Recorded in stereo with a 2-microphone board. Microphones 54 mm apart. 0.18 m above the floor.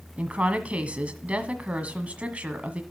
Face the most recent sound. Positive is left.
turn(degrees=-25)  # may be behind; listen again after turning